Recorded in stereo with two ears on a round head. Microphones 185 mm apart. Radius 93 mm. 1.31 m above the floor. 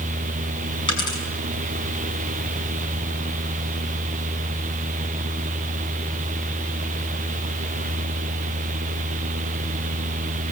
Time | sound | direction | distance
0.9 | a dropped coin | 20° left (ahead or behind) | 5.5 m